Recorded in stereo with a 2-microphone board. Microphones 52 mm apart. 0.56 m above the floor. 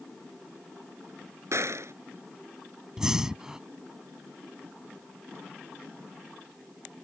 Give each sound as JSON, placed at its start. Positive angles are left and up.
{"t": 1.5, "sound": "a gunshot", "side_deg": -65}
{"t": 3.0, "sound": "breathing", "side_deg": -15}